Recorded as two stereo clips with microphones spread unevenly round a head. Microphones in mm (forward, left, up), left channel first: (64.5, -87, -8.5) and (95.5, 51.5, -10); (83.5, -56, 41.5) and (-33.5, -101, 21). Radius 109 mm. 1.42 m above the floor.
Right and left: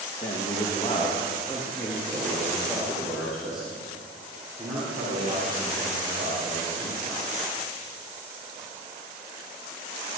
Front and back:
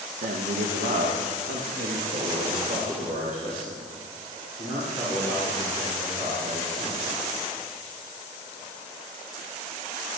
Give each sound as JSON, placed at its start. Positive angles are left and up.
{"t": 0.2, "sound": "a man speaking", "azimuth_deg": -160, "distance_m": 1.6}